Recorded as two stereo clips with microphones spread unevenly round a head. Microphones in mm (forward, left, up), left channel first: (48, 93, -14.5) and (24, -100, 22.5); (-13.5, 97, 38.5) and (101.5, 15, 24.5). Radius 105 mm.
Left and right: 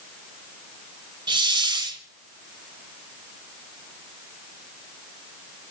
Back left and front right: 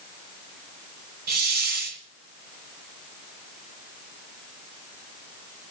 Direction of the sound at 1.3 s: 40° right.